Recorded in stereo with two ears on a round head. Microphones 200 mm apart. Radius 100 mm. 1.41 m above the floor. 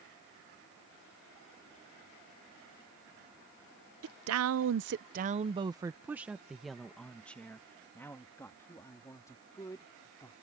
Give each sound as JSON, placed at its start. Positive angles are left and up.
{"t": 4.0, "sound": "a woman speaking", "side_deg": -70}